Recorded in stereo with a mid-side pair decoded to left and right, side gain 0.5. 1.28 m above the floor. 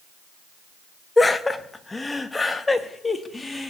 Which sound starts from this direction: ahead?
Laughter, at 1.2 s.